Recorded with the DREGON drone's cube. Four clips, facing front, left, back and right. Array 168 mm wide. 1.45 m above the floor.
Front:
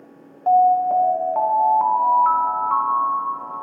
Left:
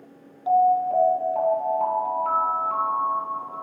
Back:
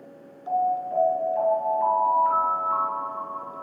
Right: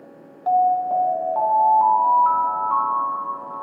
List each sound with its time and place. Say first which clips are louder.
0.5 s an alarm: right 1 dB, front 10 dB; 25° right, 1.5 m